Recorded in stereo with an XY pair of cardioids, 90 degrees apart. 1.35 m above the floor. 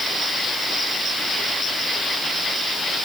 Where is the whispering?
No whispering in this recording.